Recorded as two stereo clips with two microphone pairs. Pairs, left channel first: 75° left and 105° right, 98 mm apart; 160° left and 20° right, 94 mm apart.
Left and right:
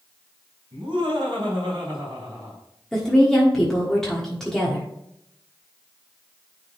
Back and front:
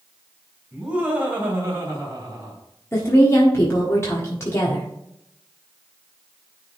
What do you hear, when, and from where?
0.7 s laughter: 100° right, 3.5 m; by 2.6 s 65° right, 4 m
2.9 s a woman speaking: 150° left, 1.3 m